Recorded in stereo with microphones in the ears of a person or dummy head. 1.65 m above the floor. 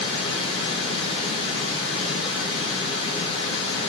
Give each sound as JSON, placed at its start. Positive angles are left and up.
{"t": 0.0, "sound": "running water", "side_deg": 30, "distance_m": 1.3}